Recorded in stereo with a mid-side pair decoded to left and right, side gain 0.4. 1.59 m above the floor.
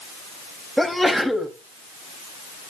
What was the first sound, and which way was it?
A sneeze, 5° right.